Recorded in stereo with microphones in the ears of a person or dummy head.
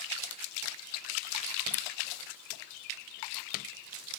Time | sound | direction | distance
1.7 | scissors | 10° left (ahead or behind) | ?